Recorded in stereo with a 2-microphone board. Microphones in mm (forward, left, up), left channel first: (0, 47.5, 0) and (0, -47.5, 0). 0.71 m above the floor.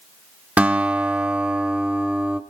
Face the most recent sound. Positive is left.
turn(degrees=-15)  # may be behind; listen again after turning